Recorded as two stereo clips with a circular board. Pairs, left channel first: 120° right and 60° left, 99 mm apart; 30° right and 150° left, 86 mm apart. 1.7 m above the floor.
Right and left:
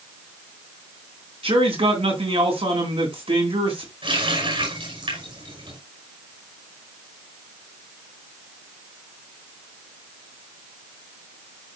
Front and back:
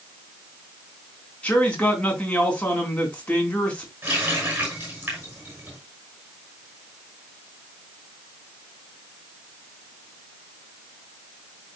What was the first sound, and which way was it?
A man speaking, 45° left.